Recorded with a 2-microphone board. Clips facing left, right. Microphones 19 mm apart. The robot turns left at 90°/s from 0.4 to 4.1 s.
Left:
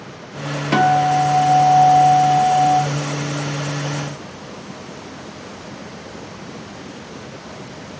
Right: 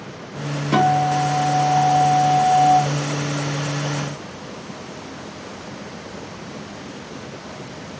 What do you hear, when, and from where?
0.7 s a guitar: 135° left, 0.9 m; by 2.8 s 50° right, 0.9 m